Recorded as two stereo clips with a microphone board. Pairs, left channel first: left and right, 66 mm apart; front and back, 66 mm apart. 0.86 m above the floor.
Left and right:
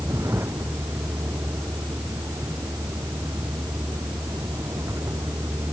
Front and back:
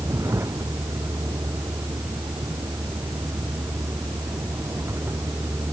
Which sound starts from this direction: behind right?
A vehicle, at 0.0 s.